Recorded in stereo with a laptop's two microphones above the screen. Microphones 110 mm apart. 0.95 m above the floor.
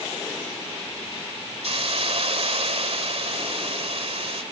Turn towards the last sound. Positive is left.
turn(degrees=-60)  # may be behind; listen again after turning